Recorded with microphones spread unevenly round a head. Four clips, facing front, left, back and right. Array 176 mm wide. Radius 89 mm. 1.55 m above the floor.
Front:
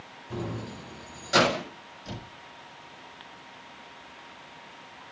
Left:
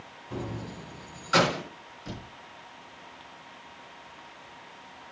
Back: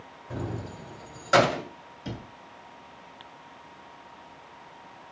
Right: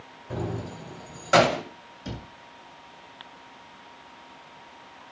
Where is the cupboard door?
140° right, 7.5 m.